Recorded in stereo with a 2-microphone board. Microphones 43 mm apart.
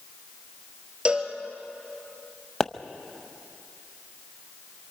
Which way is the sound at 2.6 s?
15° left (ahead or behind).